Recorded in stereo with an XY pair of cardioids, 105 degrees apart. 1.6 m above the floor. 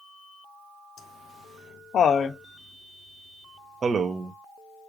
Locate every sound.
1.0 s laughter: 70° left, 1.2 m; by 4.3 s 55° right, 0.8 m